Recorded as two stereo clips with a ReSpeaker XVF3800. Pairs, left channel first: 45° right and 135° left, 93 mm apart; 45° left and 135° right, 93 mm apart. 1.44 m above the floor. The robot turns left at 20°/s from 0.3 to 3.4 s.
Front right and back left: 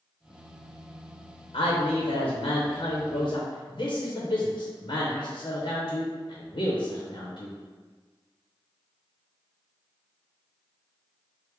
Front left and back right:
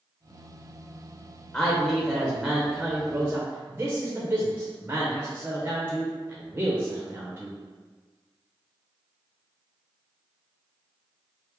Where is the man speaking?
30° right, 0.8 m; by 7.6 s 65° right, 0.8 m.